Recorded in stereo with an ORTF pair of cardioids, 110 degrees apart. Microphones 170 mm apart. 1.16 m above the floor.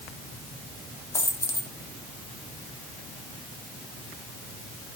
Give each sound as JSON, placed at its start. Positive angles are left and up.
{"t": 1.1, "sound": "a dropped coin", "azimuth_deg": 15, "distance_m": 1.2}